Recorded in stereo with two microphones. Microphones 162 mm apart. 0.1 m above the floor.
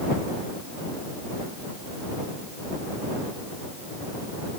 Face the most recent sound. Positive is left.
No sound to turn to.